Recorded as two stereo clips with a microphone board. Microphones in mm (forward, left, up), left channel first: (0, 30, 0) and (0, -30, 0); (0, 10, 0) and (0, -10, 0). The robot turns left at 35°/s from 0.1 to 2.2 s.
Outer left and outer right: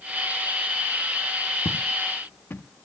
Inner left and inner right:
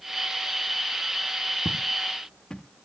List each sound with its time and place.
1.6 s footsteps: 55° left (ahead or behind), 2.0 m; by 2.6 s 35° left (ahead or behind), 2.0 m